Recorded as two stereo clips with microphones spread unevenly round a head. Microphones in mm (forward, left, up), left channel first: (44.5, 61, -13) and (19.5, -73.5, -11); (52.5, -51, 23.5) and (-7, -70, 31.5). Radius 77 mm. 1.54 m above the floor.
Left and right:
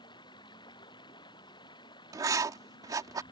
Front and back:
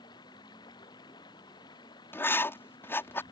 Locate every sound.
0.0 s running water: 20° left
2.1 s writing: 35° right